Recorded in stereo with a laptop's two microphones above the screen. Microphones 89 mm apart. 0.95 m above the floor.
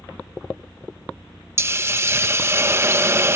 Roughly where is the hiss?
Right.